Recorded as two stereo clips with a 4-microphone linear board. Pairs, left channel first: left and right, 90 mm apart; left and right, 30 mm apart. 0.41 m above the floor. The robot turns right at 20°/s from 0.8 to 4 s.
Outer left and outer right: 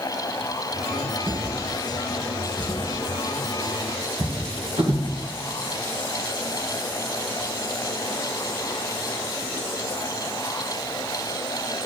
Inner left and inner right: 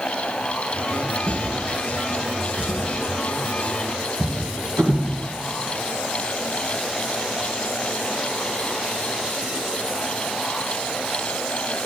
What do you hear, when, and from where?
1.3 s a drawer: 30° right (ahead or behind), 1.8 m; by 5.1 s 80° right, 1.8 m